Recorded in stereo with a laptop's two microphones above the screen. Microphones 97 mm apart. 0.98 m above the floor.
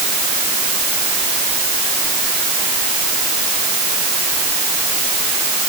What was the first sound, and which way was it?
Only background noise.